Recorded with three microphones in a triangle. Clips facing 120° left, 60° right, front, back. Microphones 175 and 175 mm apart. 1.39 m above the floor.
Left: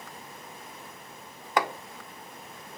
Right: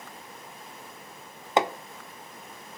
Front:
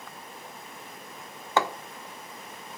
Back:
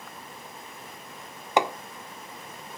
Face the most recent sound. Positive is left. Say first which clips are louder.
# right 3 dB, back 2 dB
turn(degrees=-110)